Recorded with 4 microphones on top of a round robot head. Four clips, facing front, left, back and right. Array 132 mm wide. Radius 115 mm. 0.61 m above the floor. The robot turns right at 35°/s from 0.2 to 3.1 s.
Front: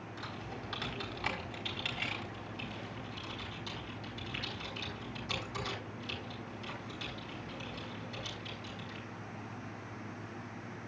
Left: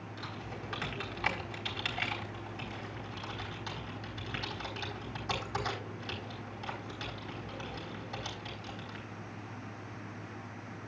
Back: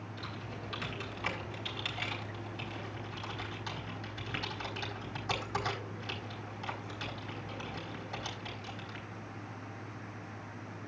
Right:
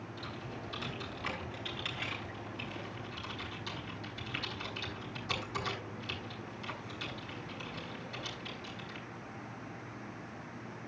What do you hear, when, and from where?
0.2 s typing on a keyboard: 40° left, 4.5 m; by 9.1 s 140° left, 4.5 m